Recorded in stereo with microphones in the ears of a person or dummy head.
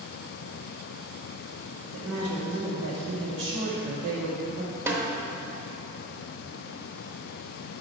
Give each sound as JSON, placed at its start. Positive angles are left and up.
{"t": 1.9, "sound": "a woman speaking", "side_deg": -50, "distance_m": 1.7}
{"t": 4.9, "sound": "a snare drum", "side_deg": -20, "distance_m": 1.0}